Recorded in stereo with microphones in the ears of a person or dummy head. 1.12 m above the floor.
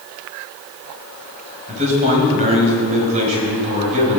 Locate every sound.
1.7 s a man speaking: 35° right (ahead or behind), 5.5 m